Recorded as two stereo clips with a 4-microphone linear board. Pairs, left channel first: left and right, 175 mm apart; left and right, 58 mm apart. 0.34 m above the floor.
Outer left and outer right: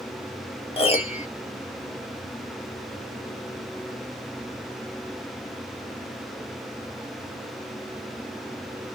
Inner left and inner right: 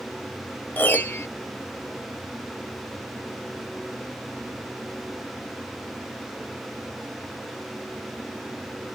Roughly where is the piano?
Left.